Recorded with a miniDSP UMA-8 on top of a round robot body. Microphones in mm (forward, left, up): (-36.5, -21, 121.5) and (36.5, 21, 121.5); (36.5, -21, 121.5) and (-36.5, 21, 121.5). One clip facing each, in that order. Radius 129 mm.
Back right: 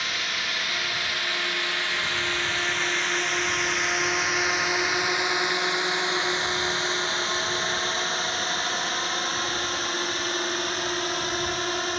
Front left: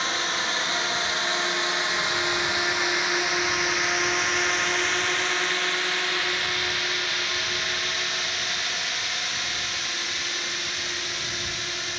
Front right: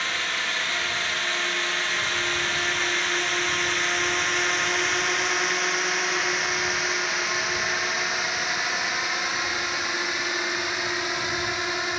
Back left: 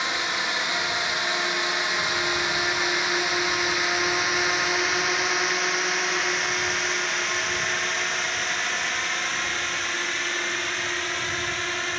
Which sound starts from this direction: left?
A drone, at 0.0 s.